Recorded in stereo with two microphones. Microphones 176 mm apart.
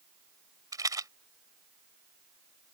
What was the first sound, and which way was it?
A rattle, 20° right (ahead or behind).